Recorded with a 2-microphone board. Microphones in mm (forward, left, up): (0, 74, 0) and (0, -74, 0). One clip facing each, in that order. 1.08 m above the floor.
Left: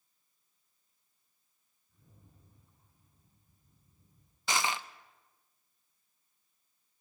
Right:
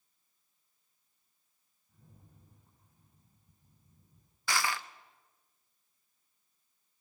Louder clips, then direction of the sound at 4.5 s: Left 1 dB; 20° left (ahead or behind).